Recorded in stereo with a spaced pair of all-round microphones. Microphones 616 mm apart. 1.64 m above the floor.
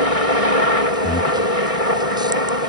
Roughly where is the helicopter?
Left.